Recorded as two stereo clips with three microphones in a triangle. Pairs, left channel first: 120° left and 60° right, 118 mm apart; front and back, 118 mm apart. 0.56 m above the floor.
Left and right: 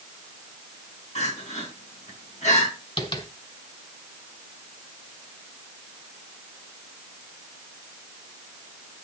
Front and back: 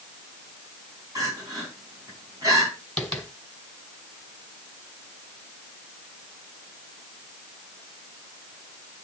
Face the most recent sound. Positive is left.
turn(degrees=85)